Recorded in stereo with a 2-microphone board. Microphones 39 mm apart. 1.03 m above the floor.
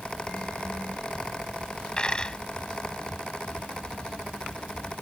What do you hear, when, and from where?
2.0 s a dropped coin: 25° left (ahead or behind)